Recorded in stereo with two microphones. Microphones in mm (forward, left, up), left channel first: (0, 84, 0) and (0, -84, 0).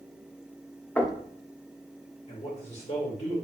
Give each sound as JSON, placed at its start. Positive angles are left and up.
{"t": 1.0, "sound": "knocking", "side_deg": 10, "distance_m": 0.5}
{"t": 2.3, "sound": "a man speaking", "side_deg": 45, "distance_m": 1.4}